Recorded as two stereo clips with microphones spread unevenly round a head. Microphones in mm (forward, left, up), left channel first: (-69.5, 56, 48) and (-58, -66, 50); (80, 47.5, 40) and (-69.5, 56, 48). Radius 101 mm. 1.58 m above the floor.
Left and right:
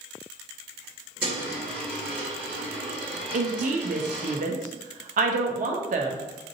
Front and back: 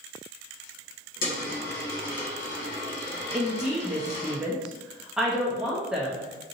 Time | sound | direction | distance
1.2 | a dropped coin | 5° right | 1.4 m
3.3 | a woman speaking | 95° right | 0.8 m